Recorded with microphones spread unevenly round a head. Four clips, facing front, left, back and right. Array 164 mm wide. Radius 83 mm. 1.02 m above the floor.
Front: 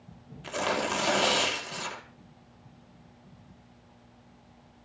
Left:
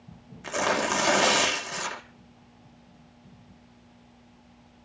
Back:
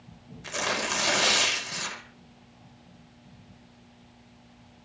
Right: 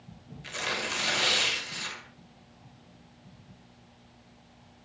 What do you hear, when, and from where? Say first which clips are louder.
0.4 s tearing paper: left 9 dB, front 2 dB; 75° left, 2.5 m